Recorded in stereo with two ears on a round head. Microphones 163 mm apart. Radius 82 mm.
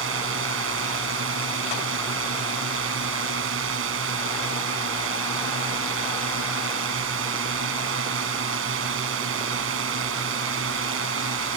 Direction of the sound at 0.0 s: 75° right (ahead or behind).